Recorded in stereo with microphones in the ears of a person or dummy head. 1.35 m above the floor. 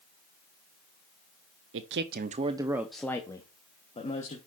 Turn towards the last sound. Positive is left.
turn(degrees=35)  # may be behind; listen again after turning